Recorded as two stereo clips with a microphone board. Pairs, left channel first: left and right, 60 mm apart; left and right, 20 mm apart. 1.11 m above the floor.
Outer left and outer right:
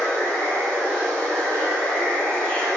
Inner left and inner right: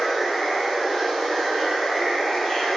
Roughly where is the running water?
Centre.